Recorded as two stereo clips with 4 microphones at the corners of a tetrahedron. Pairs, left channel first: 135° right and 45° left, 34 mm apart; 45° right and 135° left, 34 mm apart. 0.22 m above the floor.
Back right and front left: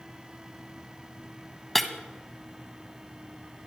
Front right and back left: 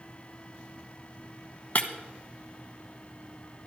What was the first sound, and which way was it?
Breaking glass, 55° right.